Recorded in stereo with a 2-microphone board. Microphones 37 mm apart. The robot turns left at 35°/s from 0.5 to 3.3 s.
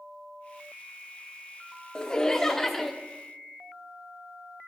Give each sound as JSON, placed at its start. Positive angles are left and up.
{"t": 1.9, "sound": "laughter", "azimuth_deg": 45, "distance_m": 0.5}